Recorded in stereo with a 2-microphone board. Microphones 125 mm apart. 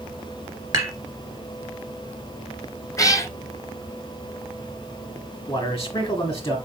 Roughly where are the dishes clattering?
Right.